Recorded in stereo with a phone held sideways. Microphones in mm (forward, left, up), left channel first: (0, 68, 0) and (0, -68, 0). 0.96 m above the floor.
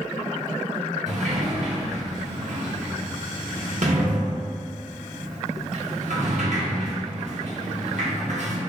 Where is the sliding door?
60° right (ahead or behind), 1.0 m.